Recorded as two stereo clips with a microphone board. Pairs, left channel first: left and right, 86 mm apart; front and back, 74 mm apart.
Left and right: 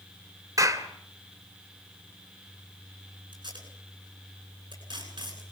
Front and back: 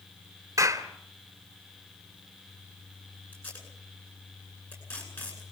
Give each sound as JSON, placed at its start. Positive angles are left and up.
{"t": 0.6, "sound": "a clap", "azimuth_deg": -135, "distance_m": 2.0}
{"t": 3.3, "sound": "tape being pulled", "azimuth_deg": -60, "distance_m": 10.0}